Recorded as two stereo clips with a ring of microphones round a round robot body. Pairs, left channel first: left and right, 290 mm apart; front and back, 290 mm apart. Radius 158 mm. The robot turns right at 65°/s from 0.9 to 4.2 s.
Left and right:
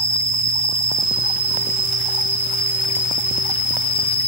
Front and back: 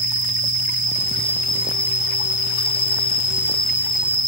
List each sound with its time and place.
0.0 s an insect: 125° right, 0.9 m; by 4.3 s 90° left, 0.9 m